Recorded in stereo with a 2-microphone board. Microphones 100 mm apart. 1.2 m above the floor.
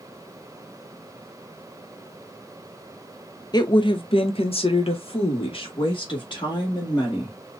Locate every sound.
3.5 s a woman speaking: 45° left (ahead or behind), 0.7 m; by 7.4 s 50° left (ahead or behind), 2 m